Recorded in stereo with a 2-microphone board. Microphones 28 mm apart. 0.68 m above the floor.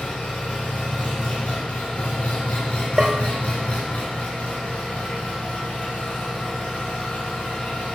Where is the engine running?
65° left (ahead or behind), 1.5 m.